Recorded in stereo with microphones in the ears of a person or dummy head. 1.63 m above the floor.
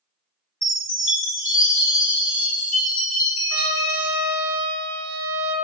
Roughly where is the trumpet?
Right.